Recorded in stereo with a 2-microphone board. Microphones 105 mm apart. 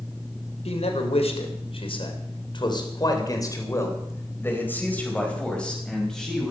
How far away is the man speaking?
About 3.5 m.